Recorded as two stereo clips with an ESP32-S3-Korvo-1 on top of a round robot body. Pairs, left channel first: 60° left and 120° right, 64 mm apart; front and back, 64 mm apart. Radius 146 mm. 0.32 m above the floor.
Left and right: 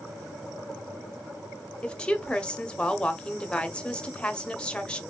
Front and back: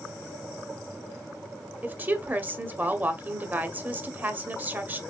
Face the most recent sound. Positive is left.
turn(degrees=130)